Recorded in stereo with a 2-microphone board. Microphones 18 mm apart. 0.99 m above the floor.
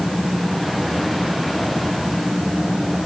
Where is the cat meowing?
I don't hear a cat meowing.